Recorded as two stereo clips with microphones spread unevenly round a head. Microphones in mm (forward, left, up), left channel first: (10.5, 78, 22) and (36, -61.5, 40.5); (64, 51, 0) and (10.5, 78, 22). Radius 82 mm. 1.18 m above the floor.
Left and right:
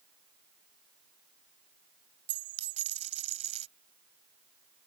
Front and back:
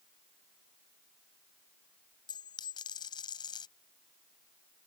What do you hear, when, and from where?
2.3 s a dropped coin: 40° right